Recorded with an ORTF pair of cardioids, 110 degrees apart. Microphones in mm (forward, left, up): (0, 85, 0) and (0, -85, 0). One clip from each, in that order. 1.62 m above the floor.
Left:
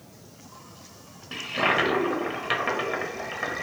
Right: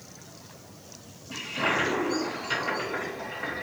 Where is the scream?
I don't hear a scream.